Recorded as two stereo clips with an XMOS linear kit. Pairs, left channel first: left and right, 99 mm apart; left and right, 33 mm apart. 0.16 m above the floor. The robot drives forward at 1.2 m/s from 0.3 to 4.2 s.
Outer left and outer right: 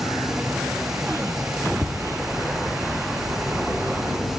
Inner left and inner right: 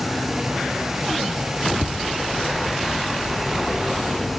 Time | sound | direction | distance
1.8 | tapping | 5° right (ahead or behind) | 0.8 m